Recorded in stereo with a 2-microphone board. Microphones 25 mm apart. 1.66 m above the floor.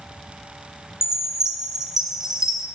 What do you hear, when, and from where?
1.0 s a chime: 20° right (ahead or behind), 0.5 m